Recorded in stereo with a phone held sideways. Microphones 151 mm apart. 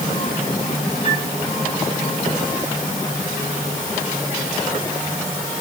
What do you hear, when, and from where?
1.0 s a flute: 50° left (ahead or behind), 7.5 m